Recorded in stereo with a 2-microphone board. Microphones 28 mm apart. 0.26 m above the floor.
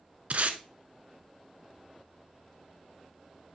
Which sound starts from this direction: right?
Tape being pulled, at 0.3 s.